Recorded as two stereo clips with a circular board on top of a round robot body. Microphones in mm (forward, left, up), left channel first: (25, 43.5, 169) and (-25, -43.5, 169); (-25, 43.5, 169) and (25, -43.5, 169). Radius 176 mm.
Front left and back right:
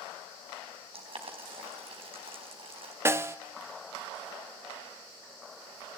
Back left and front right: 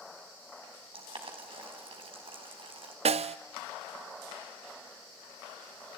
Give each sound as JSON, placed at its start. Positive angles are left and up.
{"t": 0.9, "sound": "boiling", "azimuth_deg": -90, "distance_m": 4.0}
{"t": 3.0, "sound": "a snare drum", "azimuth_deg": -55, "distance_m": 0.6}